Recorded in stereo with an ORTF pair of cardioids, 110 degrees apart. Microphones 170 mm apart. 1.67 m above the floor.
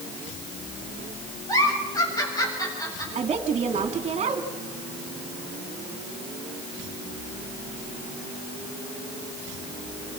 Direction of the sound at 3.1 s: 40° right.